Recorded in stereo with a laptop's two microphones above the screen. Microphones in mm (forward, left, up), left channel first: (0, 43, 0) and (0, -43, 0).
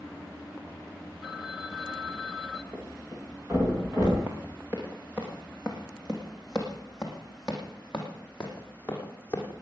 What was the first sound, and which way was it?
A phone ringing, centre (ahead or behind).